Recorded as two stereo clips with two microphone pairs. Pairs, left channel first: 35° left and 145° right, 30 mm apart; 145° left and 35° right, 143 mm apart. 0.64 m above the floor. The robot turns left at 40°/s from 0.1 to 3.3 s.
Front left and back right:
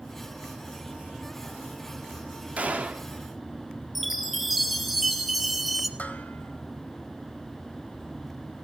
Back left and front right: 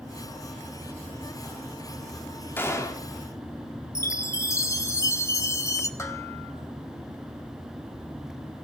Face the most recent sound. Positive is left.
turn(degrees=75)